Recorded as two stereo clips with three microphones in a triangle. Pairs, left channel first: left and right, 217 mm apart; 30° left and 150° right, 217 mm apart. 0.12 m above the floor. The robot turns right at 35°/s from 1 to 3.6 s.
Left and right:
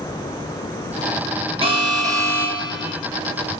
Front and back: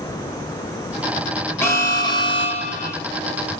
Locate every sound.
1.6 s an alarm: 45° right, 1.7 m; by 3.0 s 5° left, 1.7 m